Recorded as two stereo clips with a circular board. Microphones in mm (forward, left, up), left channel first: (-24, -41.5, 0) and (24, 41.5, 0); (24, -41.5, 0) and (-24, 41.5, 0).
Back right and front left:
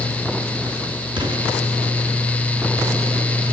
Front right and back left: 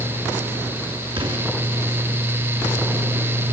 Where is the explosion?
90° left, 6 m.